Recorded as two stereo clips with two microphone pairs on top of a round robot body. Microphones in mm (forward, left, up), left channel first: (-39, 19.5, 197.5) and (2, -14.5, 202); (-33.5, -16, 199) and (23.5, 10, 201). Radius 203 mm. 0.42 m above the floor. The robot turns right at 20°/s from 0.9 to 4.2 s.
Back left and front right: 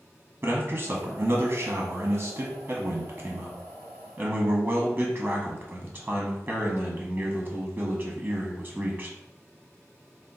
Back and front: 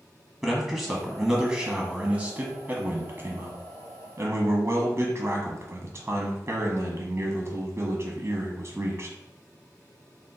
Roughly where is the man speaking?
Ahead right.